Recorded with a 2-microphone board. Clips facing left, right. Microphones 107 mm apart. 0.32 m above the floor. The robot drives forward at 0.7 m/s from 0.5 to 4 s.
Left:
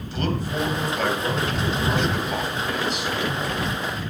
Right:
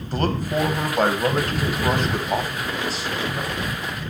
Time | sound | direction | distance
0.1 | a man speaking | 45° right (ahead or behind) | 1.6 m